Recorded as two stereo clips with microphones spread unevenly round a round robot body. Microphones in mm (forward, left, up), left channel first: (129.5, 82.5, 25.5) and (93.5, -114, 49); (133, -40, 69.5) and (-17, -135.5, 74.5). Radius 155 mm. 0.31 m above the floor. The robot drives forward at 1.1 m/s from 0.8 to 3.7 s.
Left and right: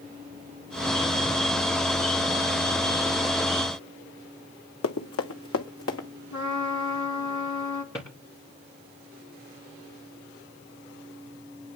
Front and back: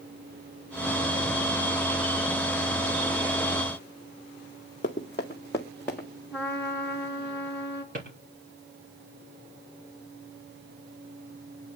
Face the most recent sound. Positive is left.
turn(degrees=160)